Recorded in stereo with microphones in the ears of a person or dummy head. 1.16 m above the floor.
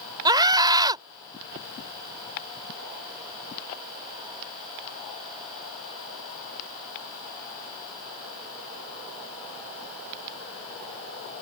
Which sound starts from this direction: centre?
A scream, at 0.2 s.